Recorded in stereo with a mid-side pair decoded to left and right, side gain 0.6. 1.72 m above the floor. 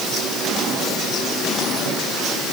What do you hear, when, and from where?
Only background noise.